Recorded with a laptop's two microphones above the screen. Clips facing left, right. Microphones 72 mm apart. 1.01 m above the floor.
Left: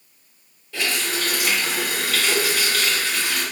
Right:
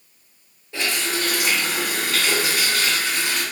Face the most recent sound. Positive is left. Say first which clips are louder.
# even
turn(degrees=-25)  # may be behind; listen again after turning